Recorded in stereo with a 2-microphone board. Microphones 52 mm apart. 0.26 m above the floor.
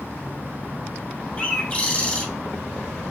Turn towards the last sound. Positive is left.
turn(degrees=25)  # may be behind; listen again after turning